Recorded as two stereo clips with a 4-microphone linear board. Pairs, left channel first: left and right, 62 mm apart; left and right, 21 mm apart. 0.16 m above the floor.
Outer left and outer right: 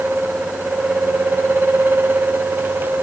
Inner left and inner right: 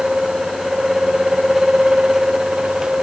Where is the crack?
No crack in this recording.